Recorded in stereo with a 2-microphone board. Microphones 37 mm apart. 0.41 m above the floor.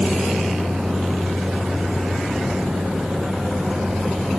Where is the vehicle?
20° right (ahead or behind); by 4.4 s 15° right (ahead or behind).